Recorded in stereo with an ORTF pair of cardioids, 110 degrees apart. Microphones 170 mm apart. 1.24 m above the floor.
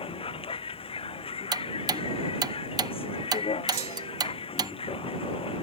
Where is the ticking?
25° right.